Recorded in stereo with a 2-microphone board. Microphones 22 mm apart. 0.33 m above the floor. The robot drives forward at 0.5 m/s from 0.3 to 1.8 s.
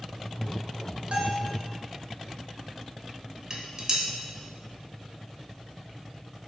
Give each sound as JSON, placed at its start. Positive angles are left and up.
{"t": 1.1, "sound": "a bell", "side_deg": -60, "distance_m": 0.8}
{"t": 3.5, "sound": "dishes clattering", "side_deg": -30, "distance_m": 0.6}